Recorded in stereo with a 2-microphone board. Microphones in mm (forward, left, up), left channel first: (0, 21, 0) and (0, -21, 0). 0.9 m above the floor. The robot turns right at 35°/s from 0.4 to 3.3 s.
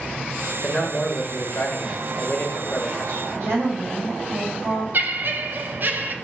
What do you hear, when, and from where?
0.6 s a man speaking: 50° left, 1.1 m; by 3.2 s 145° left, 1.1 m
3.3 s a woman speaking: 65° right (ahead or behind), 2 m
4.9 s laughter: 50° right (ahead or behind), 0.6 m